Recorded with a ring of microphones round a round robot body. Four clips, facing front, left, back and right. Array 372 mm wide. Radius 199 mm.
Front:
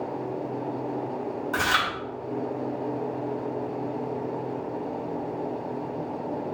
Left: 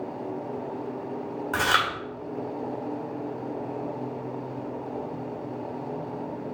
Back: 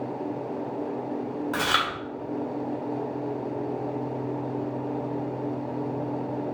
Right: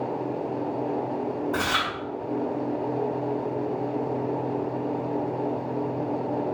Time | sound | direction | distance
1.5 | chewing | 100° left | 1.8 m